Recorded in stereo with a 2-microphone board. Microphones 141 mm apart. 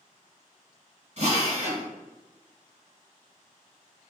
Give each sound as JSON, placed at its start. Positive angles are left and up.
{"t": 1.2, "sound": "a drill", "side_deg": -55, "distance_m": 1.8}